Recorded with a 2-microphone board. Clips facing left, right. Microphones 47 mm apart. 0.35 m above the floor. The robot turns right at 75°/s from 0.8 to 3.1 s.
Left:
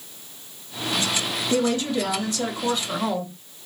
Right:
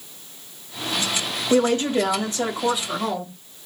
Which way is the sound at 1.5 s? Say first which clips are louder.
Right 4 dB; 105° right.